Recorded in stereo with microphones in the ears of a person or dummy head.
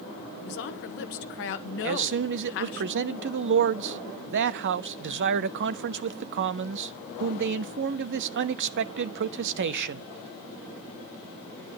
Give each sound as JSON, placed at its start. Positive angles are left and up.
{"t": 0.4, "sound": "a woman speaking", "side_deg": 60, "distance_m": 1.0}
{"t": 1.8, "sound": "a man speaking", "side_deg": -60, "distance_m": 0.5}